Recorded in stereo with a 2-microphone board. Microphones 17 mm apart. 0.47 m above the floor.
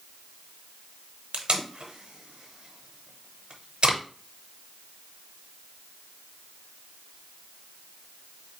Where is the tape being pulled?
70° right (ahead or behind), 0.8 m.